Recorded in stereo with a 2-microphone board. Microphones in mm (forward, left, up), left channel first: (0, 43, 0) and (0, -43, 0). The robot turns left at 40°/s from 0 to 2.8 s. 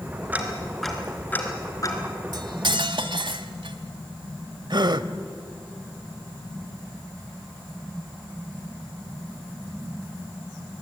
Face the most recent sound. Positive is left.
turn(degrees=-55)  # may be behind; listen again after turning